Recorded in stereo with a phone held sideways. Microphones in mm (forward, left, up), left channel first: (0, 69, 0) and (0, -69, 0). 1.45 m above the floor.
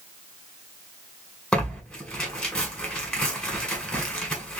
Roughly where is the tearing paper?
Centre.